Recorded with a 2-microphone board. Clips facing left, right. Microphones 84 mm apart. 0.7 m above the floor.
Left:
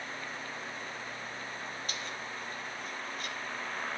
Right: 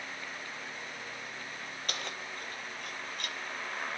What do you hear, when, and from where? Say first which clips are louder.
1.9 s keys jangling: even; 65° right (ahead or behind), 1.3 m; by 3.4 s 75° right (ahead or behind), 2.5 m